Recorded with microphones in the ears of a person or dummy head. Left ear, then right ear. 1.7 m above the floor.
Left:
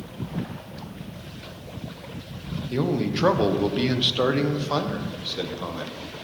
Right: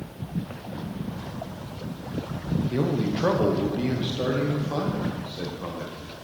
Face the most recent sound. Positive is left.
turn(degrees=80)